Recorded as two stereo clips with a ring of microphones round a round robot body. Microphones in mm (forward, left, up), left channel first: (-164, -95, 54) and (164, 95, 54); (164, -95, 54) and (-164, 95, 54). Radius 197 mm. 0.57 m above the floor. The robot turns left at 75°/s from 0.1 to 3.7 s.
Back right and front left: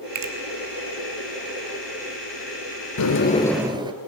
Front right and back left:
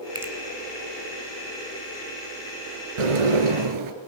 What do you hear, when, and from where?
0.1 s a finger snap: 70° left, 3 m; by 0.3 s 60° left, 3 m
3.0 s a sliding door: 165° left, 3 m; by 3.9 s 110° left, 3 m